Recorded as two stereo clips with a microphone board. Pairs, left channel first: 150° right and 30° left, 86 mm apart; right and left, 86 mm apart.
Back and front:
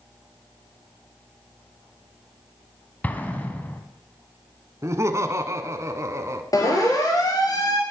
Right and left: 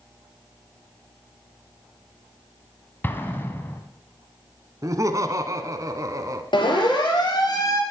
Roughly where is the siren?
Right.